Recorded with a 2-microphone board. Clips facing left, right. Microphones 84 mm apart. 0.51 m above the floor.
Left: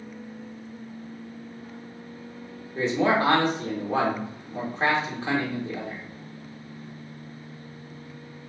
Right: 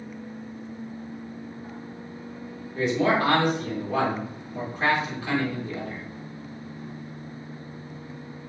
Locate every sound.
2.8 s a man speaking: 30° left (ahead or behind), 1.0 m